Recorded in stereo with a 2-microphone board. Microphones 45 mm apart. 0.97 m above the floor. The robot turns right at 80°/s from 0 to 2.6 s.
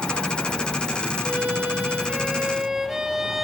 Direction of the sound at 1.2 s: 125° right.